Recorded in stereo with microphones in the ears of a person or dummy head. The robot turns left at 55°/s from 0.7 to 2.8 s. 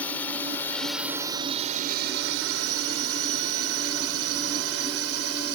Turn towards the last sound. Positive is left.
turn(degrees=-75)  # may be behind; listen again after turning